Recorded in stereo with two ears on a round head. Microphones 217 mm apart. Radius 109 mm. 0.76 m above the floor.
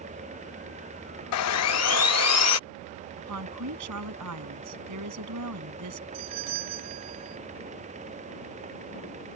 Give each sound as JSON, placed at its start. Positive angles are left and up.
{"t": 1.3, "sound": "sawing", "side_deg": 65}
{"t": 3.2, "sound": "a woman speaking", "side_deg": -80}
{"t": 6.1, "sound": "a doorbell", "side_deg": -75}